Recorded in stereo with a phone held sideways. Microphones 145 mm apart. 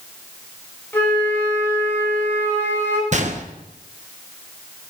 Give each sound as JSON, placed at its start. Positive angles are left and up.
{"t": 0.9, "sound": "a flute", "side_deg": 15, "distance_m": 4.0}
{"t": 3.1, "sound": "a gunshot", "side_deg": -55, "distance_m": 1.0}